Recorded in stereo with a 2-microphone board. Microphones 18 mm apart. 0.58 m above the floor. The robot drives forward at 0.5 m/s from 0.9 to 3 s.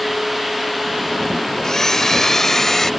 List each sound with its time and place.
1.6 s a blender: 35° left (ahead or behind); by 2.9 s 25° left (ahead or behind)